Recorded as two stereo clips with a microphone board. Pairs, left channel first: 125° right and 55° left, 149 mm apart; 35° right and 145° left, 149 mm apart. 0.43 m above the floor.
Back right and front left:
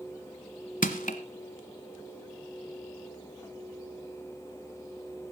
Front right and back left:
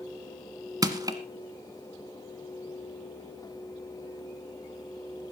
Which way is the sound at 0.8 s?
150° right.